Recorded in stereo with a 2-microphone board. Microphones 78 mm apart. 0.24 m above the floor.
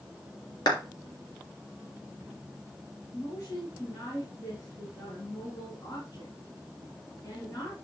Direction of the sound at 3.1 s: 40° left (ahead or behind).